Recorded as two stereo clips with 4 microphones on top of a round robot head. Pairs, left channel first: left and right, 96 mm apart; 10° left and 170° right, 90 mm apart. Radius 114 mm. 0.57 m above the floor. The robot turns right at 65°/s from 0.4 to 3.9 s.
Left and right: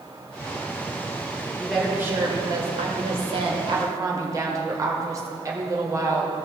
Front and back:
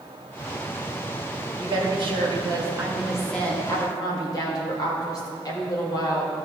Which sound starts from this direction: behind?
A woman speaking, at 1.6 s.